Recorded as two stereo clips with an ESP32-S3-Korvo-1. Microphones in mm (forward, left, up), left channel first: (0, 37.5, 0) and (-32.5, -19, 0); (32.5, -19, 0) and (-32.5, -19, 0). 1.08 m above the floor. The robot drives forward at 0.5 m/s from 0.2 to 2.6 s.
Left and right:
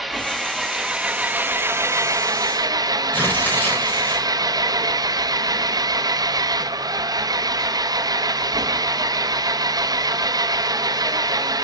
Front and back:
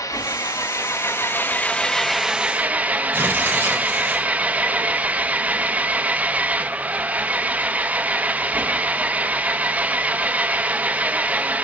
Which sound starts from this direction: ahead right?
An engine running, at 0.0 s.